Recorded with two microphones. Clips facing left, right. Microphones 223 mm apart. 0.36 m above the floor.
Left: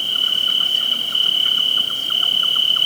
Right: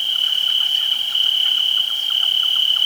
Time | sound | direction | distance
0.0 | an insect | 55° left (ahead or behind) | ?